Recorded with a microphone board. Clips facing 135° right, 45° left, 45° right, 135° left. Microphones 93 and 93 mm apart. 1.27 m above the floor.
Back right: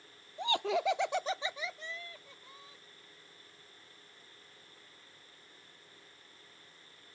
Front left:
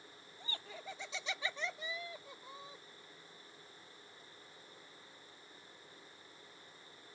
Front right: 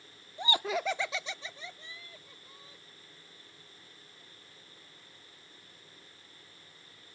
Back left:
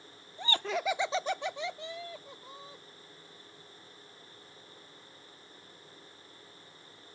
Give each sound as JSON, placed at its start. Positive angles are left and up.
{"t": 0.4, "sound": "laughter", "azimuth_deg": -115}